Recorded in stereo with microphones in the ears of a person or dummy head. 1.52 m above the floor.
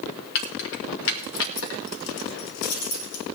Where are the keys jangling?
65° left (ahead or behind), 1.8 m.